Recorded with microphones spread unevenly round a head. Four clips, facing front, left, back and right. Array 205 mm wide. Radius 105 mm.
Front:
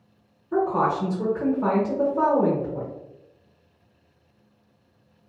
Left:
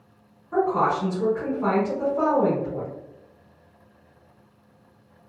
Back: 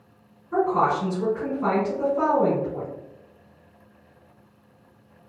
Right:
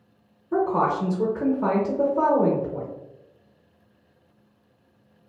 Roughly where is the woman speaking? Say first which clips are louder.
Even, back 1 dB; right.